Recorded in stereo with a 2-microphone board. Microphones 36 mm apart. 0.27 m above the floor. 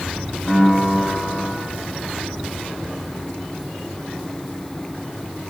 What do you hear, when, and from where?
0.5 s a piano: 20° left (ahead or behind), 1.2 m